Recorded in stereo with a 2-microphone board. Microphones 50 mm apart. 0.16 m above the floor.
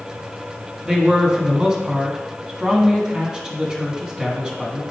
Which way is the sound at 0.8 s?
15° right (ahead or behind).